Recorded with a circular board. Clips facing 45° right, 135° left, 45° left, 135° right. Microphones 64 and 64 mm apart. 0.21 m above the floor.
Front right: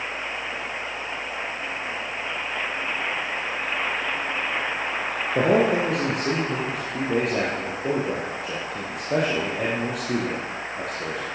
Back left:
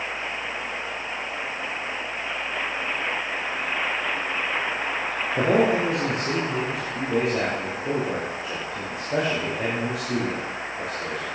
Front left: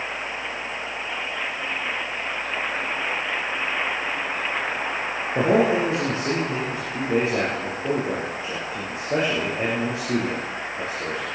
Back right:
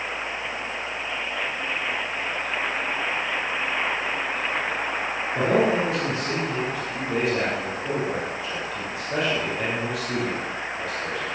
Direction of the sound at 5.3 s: 20° right.